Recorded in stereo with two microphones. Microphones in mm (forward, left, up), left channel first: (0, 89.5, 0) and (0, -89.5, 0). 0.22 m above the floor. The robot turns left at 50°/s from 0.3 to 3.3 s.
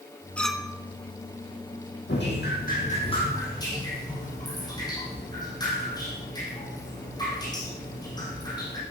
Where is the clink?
5° left (ahead or behind), 1.2 m; by 0.8 s 15° right (ahead or behind), 1.2 m.